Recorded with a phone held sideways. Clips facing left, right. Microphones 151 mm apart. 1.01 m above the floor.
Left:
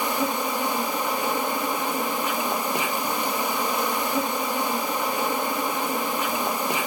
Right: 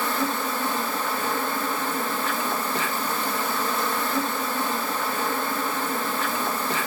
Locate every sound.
0.0 s an insect: 15° left (ahead or behind), 0.7 m